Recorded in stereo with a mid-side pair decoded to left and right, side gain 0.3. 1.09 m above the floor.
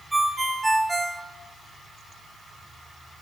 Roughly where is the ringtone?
Ahead.